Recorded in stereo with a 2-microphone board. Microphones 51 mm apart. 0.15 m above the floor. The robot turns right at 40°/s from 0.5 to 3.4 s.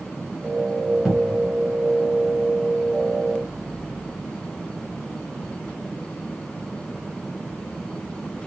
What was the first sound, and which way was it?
A cupboard door, centre (ahead or behind).